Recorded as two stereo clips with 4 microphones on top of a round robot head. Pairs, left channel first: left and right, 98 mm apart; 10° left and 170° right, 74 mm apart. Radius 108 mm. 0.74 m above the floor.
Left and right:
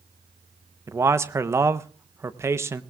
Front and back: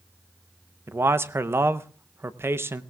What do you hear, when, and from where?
0.9 s a man speaking: 135° right, 0.8 m